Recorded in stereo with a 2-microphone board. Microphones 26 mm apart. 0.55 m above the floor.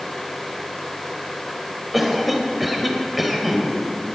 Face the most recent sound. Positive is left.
turn(degrees=-5)  # may be behind; listen again after turning